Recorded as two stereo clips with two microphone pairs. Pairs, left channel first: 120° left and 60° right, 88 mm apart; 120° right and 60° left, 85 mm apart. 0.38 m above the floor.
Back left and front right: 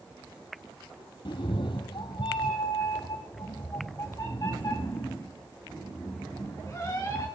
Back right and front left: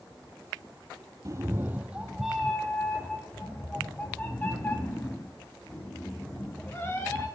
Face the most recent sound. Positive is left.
turn(degrees=175)